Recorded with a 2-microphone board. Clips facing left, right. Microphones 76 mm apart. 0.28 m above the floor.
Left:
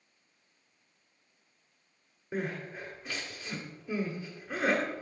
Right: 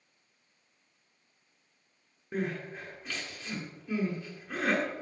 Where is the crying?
10° left (ahead or behind), 1.5 m.